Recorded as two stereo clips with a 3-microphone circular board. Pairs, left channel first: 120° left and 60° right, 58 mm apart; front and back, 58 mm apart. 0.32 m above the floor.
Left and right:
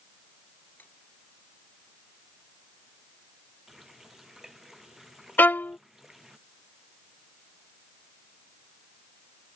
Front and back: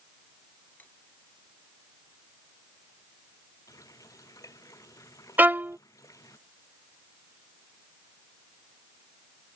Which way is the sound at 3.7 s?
25° left.